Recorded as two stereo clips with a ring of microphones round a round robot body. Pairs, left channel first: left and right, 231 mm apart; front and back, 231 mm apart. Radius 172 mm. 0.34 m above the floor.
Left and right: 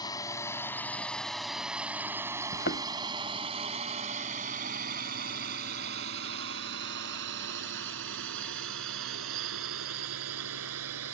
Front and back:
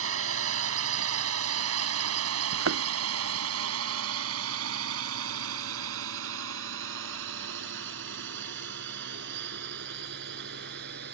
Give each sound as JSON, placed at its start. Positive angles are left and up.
{"t": 0.0, "sound": "a drone", "azimuth_deg": 165}
{"t": 2.5, "sound": "a thud", "azimuth_deg": 155}